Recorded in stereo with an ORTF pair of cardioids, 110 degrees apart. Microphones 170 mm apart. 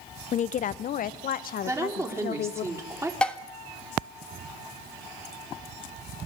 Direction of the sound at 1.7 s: 15° right.